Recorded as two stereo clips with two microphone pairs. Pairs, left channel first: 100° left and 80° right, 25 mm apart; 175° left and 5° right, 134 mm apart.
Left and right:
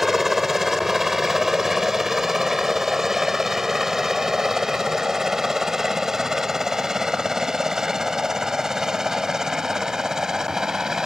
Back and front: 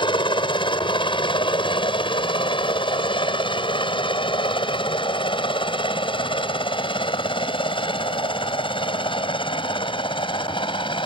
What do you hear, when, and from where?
0.0 s a helicopter: 155° right; by 11.1 s 140° right